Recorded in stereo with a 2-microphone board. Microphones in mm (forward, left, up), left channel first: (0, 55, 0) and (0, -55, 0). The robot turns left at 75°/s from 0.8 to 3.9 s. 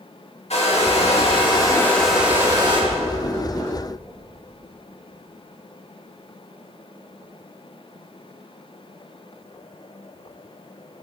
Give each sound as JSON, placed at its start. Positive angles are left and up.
{"t": 0.5, "sound": "a hair dryer", "azimuth_deg": 95, "distance_m": 1.9}
{"t": 2.9, "sound": "chewing", "side_deg": 65, "distance_m": 2.0}